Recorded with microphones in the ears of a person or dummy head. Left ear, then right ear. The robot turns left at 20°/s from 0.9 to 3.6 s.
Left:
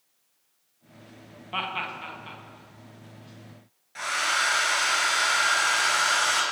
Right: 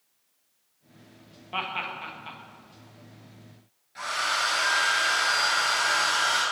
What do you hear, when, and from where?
1.5 s laughter: 5° left (ahead or behind), 1.8 m; by 2.4 s 10° right (ahead or behind), 1.8 m
4.0 s a hair dryer: 30° left (ahead or behind), 4 m